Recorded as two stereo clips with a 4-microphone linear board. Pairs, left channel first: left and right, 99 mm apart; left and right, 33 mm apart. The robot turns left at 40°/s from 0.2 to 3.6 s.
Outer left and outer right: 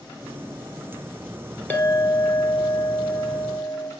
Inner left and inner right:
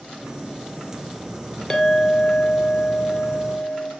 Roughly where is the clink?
Behind left.